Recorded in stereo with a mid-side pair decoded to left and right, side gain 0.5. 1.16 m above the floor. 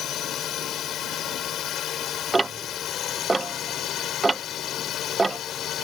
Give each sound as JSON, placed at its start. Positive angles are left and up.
{"t": 0.0, "sound": "a drone", "azimuth_deg": 60}
{"t": 2.3, "sound": "ticking", "azimuth_deg": -20}